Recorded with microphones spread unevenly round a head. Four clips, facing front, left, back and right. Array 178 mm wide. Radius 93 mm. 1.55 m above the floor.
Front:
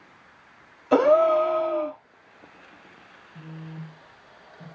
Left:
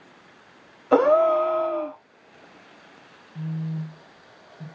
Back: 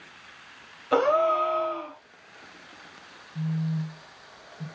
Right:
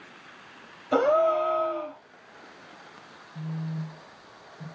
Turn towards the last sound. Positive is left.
turn(degrees=115)